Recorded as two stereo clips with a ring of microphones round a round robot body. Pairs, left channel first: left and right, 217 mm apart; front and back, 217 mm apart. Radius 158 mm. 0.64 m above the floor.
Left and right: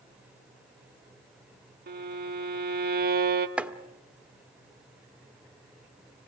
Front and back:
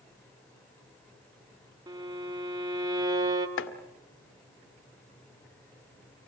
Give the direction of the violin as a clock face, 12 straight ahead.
4 o'clock.